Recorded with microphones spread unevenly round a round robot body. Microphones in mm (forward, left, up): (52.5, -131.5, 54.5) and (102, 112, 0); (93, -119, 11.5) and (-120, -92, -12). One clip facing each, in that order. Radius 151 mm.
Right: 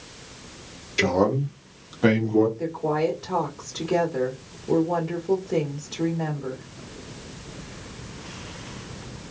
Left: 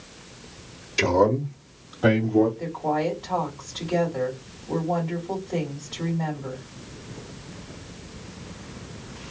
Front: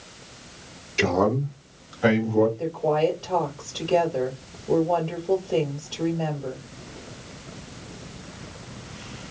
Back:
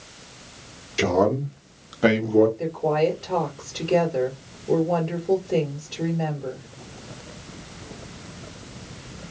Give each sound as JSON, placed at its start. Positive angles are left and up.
{"t": 1.0, "sound": "a man speaking", "azimuth_deg": 115, "distance_m": 0.7}
{"t": 2.6, "sound": "a woman speaking", "azimuth_deg": -130, "distance_m": 1.8}